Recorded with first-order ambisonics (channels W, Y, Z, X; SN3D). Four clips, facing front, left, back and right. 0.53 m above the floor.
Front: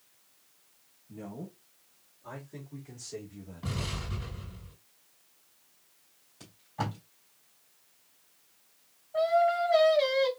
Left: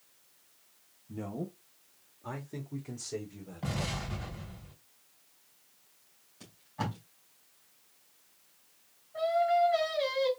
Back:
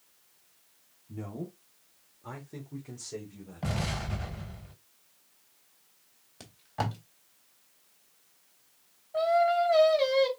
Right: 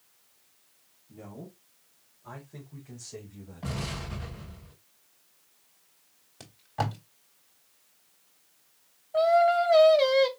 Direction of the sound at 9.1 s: 105° right.